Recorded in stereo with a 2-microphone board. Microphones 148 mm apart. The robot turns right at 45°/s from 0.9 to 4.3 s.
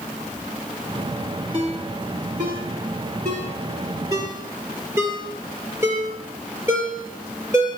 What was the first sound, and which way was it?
A ringtone, 35° right (ahead or behind).